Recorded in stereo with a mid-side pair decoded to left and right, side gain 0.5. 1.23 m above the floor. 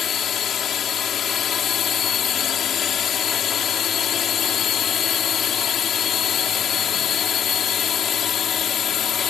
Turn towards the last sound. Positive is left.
turn(degrees=55)